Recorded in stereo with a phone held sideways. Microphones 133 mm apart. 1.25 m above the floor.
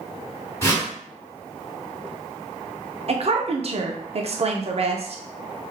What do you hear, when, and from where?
0.6 s a whoosh: 25° left (ahead or behind), 2.0 m
3.1 s a woman speaking: 50° right (ahead or behind), 0.5 m